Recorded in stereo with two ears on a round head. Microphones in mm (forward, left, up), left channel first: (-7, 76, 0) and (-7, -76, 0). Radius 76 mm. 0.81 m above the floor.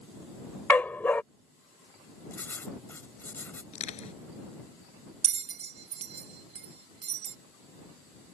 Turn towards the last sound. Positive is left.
turn(degrees=-40)  # may be behind; listen again after turning